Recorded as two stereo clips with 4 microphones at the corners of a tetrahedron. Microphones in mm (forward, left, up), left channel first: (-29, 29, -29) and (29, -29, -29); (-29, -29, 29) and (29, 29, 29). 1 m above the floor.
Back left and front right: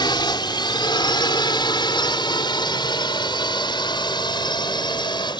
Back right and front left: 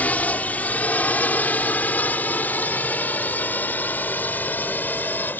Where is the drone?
155° left; by 5.4 s 160° left.